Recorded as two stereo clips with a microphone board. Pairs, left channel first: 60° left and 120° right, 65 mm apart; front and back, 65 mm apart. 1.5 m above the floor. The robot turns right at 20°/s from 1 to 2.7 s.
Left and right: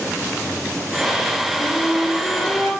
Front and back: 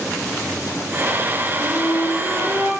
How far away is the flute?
About 2.5 m.